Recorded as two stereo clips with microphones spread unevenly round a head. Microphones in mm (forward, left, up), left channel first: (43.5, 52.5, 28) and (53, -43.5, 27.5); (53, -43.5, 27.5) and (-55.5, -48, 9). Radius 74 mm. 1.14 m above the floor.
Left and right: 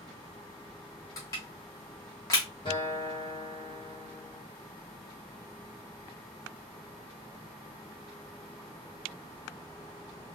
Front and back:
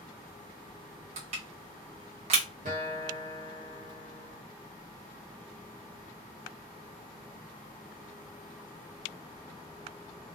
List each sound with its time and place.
1.2 s crushing: 160° left, 1.3 m
2.6 s a guitar: 150° left, 1.2 m